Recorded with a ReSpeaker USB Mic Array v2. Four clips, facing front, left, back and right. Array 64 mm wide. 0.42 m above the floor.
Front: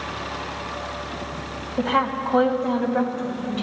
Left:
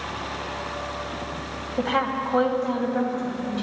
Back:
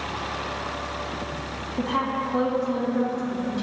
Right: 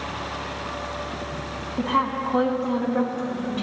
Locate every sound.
1.8 s a woman speaking: 40° left, 2.5 m; by 3.6 s 10° right, 3.5 m